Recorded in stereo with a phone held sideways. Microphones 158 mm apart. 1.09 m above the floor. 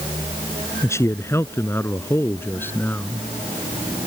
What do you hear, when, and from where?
0.8 s a man speaking: 15° left (ahead or behind); by 3.3 s 10° left (ahead or behind)